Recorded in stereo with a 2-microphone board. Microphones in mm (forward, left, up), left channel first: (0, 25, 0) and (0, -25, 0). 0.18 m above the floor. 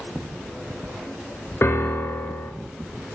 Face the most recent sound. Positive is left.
turn(degrees=60)  # may be behind; listen again after turning